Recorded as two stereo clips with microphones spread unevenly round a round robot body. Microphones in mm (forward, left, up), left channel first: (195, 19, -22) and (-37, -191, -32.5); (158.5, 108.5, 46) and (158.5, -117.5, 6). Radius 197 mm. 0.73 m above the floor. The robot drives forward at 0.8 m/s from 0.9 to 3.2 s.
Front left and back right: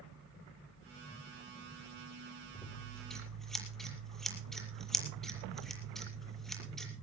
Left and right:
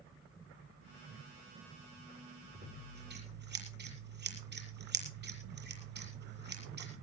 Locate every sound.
2.5 s scissors: 45° right, 6.5 m